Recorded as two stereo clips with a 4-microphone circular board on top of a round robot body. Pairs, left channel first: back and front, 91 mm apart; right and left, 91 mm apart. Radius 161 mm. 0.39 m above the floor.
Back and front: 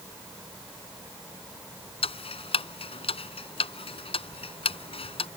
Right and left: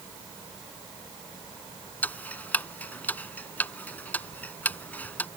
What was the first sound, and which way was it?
Ticking, 165° right.